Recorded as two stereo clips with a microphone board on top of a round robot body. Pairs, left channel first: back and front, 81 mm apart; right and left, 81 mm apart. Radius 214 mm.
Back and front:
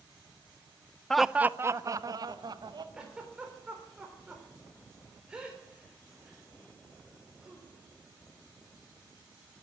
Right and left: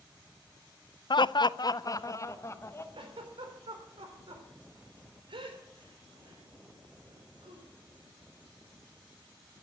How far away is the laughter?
About 0.6 m.